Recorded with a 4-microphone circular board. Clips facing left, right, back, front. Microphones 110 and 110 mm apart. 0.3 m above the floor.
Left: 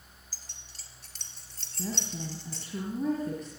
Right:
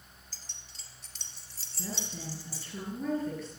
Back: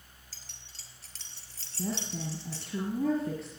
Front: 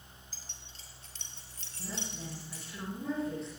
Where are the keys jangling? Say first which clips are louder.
Even, front 2 dB; 170° left, 4 m; by 2.7 s 170° right, 5 m.